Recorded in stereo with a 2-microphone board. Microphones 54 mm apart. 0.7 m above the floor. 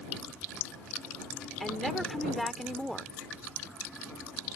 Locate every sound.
1.6 s a woman speaking: centre (ahead or behind)